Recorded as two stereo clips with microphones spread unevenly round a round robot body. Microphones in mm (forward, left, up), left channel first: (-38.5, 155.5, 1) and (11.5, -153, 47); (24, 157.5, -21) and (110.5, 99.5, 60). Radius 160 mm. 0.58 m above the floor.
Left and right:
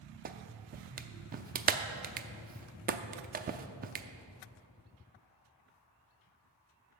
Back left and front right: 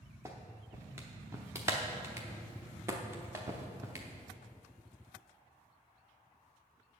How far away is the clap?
About 0.6 m.